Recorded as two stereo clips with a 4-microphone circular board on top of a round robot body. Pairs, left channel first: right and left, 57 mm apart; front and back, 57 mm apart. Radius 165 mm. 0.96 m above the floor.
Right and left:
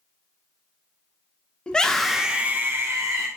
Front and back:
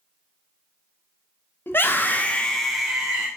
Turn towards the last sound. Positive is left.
turn(degrees=105)